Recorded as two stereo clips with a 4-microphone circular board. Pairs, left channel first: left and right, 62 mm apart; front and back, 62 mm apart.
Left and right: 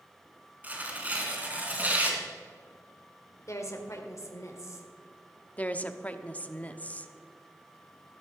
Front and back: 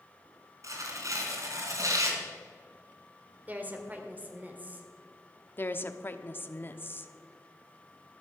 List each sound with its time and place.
0.6 s tearing paper: 155° right, 2.5 m
3.5 s a woman speaking: 120° left, 1.8 m
5.6 s a woman speaking: 35° left, 0.9 m